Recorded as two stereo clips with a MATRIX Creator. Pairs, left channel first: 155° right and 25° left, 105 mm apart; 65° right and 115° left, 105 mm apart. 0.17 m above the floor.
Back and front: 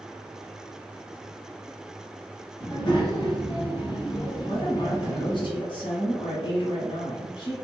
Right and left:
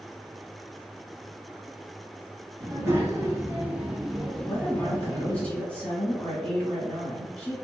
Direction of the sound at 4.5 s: 145° right.